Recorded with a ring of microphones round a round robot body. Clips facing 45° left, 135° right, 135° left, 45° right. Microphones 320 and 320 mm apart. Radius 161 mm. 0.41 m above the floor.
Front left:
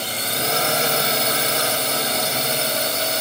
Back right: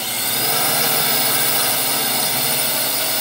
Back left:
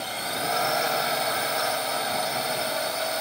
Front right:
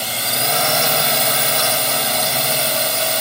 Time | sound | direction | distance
0.0 | a drone | 55° right | ?